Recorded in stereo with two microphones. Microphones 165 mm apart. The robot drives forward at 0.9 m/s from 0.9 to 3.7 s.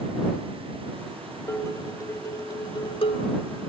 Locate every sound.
1.5 s dishes clattering: 15° left (ahead or behind), 2.5 m; by 3.3 s 40° left (ahead or behind), 1.2 m